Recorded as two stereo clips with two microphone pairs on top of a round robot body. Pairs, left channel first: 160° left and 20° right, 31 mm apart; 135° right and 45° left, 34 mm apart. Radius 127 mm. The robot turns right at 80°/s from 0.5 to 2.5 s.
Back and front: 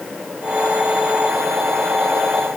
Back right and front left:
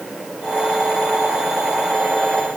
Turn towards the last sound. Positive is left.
No sound to turn to.